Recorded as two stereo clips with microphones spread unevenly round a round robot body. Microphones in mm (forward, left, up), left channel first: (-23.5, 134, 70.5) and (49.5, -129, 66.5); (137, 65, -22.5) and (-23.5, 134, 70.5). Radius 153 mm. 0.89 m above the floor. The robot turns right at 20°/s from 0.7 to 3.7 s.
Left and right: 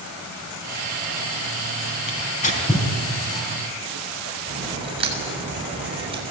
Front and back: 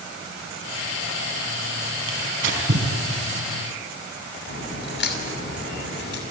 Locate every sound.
2.1 s tearing paper: 165° left, 3.5 m; by 2.9 s straight behind, 3.5 m
4.5 s a crack: 5° right, 6.5 m